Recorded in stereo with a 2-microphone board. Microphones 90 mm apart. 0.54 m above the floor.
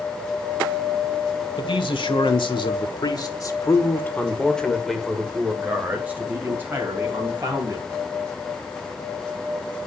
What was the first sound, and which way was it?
A man speaking, 70° left (ahead or behind).